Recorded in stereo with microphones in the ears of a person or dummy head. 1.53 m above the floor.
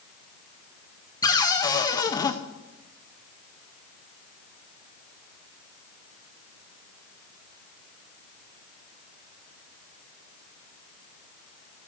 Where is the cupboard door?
25° left (ahead or behind), 0.6 m.